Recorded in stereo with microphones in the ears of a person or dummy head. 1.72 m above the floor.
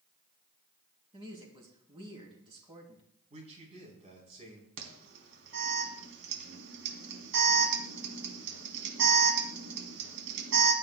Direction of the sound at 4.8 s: 80° right.